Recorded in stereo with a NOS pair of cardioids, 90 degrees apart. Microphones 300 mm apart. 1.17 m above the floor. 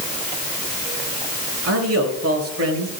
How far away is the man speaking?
About 6 m.